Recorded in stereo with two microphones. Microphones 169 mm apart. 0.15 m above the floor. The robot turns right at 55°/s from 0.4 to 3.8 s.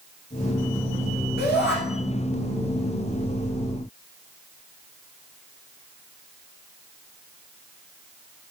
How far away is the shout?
About 8 m.